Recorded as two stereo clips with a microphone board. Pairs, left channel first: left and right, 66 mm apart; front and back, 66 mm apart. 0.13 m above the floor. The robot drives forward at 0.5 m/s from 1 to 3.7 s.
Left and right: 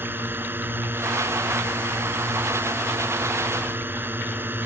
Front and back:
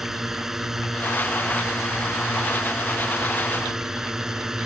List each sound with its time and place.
0.0 s a drone: 100° right; by 4.7 s 105° right